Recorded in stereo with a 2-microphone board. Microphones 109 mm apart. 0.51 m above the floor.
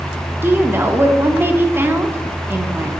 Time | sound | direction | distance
0.4 | a woman speaking | 20° right (ahead or behind) | 0.7 m